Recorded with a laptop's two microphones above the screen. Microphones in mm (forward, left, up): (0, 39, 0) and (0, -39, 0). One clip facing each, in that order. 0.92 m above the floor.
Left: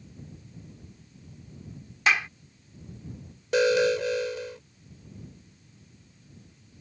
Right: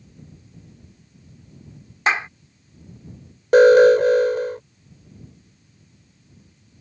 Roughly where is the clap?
Right.